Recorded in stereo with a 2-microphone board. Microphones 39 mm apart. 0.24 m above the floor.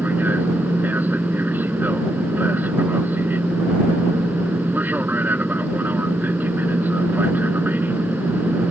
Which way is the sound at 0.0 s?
55° right (ahead or behind).